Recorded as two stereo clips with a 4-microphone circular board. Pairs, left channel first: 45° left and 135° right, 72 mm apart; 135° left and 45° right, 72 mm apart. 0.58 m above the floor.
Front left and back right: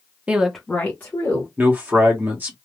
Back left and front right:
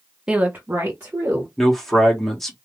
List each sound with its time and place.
0.3 s a woman speaking: 100° right, 0.7 m; by 1.5 s straight ahead, 1.6 m
1.6 s a man speaking: 145° right, 1.2 m